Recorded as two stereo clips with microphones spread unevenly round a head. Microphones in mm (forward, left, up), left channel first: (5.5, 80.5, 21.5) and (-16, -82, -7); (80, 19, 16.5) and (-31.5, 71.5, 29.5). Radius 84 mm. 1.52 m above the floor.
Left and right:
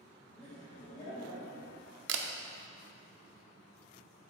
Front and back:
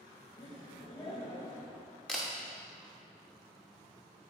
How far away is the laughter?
About 2.0 m.